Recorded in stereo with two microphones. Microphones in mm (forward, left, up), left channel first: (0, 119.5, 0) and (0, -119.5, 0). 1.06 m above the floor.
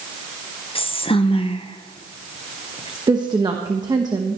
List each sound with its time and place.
0.8 s whispering: 25° left (ahead or behind), 0.6 m
3.1 s a woman speaking: 15° right (ahead or behind), 1.1 m